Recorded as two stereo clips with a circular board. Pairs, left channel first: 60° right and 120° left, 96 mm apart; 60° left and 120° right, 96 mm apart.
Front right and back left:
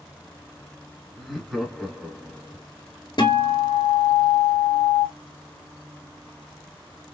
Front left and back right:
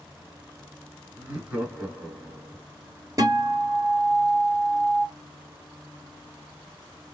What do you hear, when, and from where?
1.2 s laughter: 155° right, 1.4 m
3.2 s a guitar: 75° right, 1.2 m